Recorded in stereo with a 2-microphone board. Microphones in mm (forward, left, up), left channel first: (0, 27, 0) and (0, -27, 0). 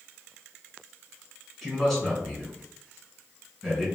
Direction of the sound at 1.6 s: Centre (ahead or behind).